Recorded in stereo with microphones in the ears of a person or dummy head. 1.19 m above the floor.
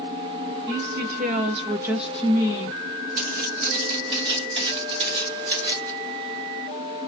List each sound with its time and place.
0.7 s a woman speaking: 65° right (ahead or behind), 1.2 m; by 2.8 s 30° left (ahead or behind), 1.0 m
3.2 s footsteps: 40° right (ahead or behind), 1.5 m; by 5.9 s 20° right (ahead or behind), 1.8 m